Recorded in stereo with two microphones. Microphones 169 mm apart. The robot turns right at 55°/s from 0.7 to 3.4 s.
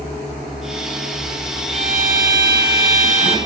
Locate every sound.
1.7 s a violin: 135° right, 0.9 m; by 3.4 s 45° right, 0.9 m